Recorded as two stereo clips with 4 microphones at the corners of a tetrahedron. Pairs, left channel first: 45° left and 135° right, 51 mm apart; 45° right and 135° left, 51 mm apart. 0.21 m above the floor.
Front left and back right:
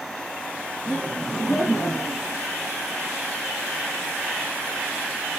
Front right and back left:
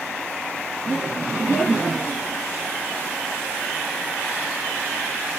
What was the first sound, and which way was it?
Laughter, 85° left.